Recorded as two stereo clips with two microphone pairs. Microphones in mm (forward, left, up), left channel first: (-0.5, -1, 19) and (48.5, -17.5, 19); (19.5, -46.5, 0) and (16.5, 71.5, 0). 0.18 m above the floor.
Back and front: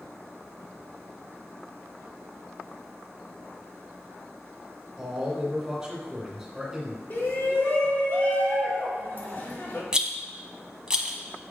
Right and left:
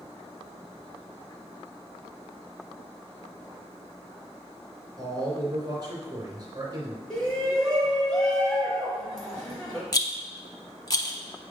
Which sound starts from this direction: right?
A rattle, at 9.9 s.